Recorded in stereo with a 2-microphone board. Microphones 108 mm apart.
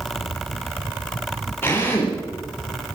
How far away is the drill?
About 10 m.